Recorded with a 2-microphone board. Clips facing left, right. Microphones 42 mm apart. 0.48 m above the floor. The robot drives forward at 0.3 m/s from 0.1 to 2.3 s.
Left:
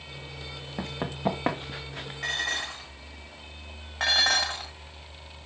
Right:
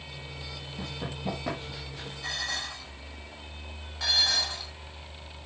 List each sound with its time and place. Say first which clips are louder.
0.8 s running footsteps: left 7 dB; 60° left (ahead or behind), 2 m; by 2.1 s 65° left (ahead or behind), 3 m
2.2 s dishes clattering: left 4 dB; 60° left (ahead or behind), 6 m
4.0 s dishes clattering: left 4 dB; 50° left (ahead or behind), 1.6 m